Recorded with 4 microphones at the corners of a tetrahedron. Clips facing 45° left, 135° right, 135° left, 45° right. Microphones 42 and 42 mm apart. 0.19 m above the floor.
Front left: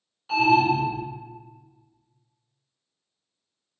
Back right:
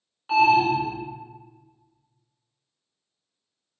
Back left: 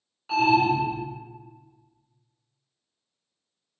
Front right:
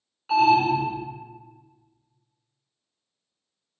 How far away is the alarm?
About 1.8 m.